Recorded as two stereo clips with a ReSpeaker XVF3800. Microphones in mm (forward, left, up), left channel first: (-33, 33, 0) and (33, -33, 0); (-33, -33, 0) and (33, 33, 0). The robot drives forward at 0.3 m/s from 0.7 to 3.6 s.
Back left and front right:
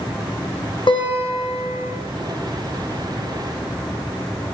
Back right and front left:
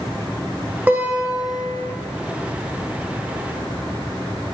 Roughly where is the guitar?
Behind left.